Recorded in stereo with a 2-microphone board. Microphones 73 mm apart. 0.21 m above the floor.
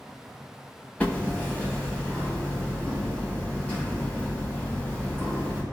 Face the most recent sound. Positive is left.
turn(degrees=20)  # may be behind; listen again after turning